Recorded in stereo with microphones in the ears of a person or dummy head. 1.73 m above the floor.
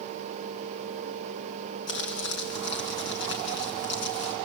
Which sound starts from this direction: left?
Crumpling, at 1.9 s.